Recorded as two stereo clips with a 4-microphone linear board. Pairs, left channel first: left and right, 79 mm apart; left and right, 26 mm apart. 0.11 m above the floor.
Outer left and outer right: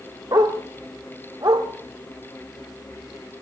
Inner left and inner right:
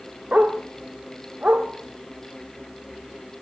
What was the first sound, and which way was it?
A dog barking, 60° right (ahead or behind).